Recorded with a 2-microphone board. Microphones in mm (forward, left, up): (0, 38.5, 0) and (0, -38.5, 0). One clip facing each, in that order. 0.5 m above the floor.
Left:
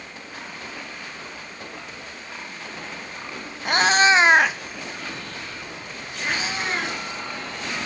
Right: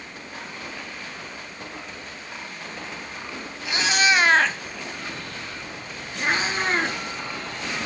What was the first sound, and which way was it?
A cat meowing, 55° left (ahead or behind).